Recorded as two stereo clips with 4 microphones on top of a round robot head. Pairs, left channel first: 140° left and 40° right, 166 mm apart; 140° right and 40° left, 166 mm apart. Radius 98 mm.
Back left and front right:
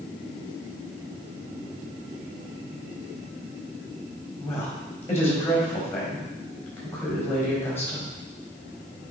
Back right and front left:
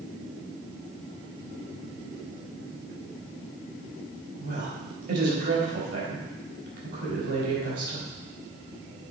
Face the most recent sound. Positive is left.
turn(degrees=60)